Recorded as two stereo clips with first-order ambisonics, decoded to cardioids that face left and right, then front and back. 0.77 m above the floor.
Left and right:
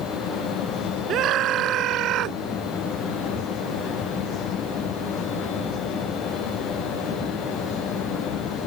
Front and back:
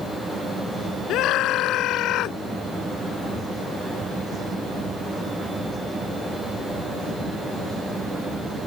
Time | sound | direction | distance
1.1 | a scream | 45° right | ?